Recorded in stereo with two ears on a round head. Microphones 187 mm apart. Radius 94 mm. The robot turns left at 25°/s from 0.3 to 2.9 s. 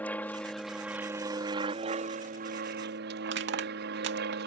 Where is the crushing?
60° right (ahead or behind).